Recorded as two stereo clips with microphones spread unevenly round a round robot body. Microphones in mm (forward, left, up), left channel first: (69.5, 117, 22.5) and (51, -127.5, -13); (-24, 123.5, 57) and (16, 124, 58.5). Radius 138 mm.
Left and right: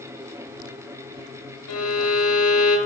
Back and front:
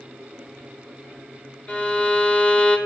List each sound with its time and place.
1.7 s a violin: 125° left, 1.1 m